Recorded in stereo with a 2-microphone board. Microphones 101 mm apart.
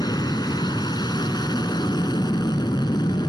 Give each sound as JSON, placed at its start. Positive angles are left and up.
{"t": 0.0, "sound": "an aircraft", "side_deg": 45}